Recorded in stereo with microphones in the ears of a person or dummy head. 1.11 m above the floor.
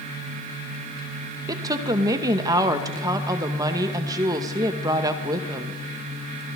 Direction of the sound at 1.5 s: 15° right (ahead or behind).